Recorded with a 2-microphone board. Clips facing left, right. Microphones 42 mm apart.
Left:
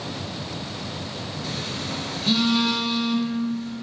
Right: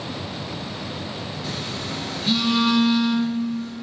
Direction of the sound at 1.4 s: 5° right (ahead or behind).